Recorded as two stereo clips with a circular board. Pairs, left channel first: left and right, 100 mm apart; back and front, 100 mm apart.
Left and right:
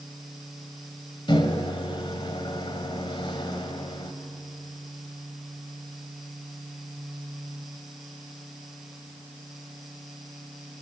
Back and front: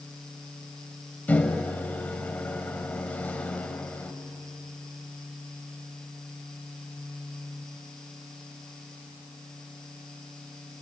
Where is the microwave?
110° left, 1.7 m.